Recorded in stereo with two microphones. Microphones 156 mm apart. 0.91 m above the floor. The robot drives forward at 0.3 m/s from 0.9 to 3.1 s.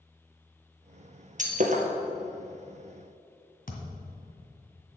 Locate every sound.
1.4 s breaking glass: 55° right (ahead or behind), 1.4 m
3.7 s a thud: 65° left (ahead or behind), 1.8 m